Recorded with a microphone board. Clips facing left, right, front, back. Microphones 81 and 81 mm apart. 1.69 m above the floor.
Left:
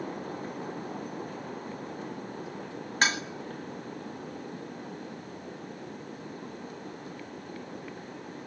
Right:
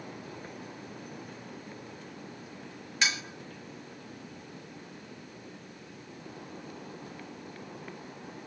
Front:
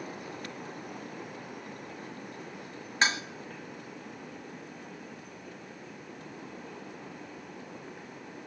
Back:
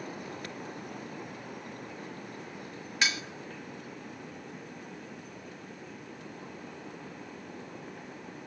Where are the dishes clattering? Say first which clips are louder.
Left 5 dB, front 4 dB; 50° left, 1.6 m.